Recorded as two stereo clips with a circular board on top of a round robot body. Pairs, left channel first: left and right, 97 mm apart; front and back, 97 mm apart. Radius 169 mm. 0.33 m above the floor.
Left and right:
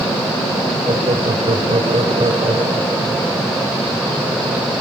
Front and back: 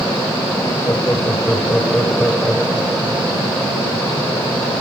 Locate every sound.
0.9 s laughter: 65° right, 3 m; by 3.2 s 105° right, 3 m